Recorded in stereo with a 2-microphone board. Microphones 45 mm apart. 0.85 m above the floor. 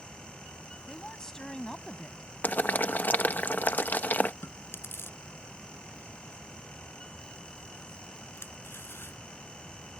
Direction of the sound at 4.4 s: 60° left (ahead or behind).